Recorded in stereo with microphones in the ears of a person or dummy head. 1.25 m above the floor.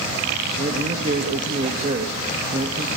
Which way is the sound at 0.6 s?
40° right (ahead or behind).